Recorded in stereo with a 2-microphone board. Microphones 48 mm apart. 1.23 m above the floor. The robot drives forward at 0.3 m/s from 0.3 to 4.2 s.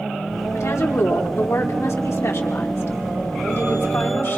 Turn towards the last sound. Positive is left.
turn(degrees=65)  # may be behind; listen again after turning